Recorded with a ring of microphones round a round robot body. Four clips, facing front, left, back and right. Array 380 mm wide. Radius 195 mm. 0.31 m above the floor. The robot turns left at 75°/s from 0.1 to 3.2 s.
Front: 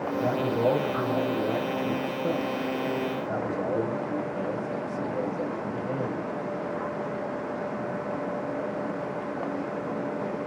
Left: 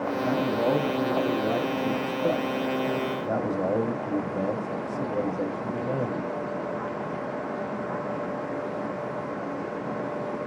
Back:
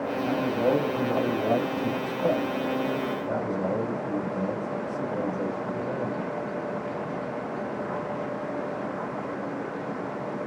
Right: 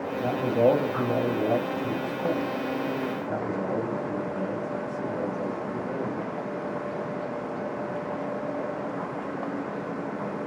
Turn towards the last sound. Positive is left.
turn(degrees=95)